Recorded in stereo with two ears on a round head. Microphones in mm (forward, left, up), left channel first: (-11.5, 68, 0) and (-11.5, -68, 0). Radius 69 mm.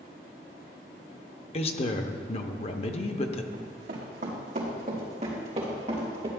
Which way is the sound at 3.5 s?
65° right (ahead or behind).